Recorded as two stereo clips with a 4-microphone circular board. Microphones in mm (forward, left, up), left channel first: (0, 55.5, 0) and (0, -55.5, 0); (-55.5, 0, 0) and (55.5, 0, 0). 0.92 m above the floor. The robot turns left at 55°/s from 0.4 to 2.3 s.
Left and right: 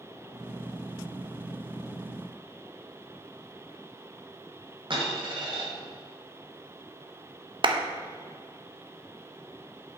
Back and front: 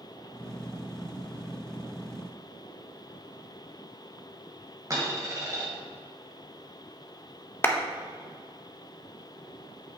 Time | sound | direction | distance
4.9 | a dropped coin | 60° right | 2 m
7.6 | a clap | 115° right | 0.6 m